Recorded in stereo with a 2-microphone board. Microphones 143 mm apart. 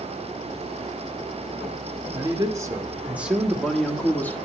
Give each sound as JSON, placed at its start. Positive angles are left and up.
{"t": 2.1, "sound": "a man speaking", "side_deg": -30, "distance_m": 1.3}